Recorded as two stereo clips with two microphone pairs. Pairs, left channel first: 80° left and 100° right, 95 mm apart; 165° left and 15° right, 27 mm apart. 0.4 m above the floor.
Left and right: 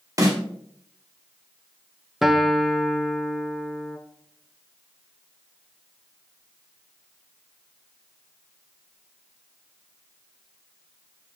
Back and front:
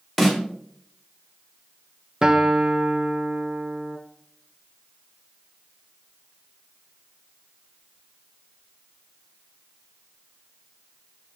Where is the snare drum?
105° right, 1.5 m.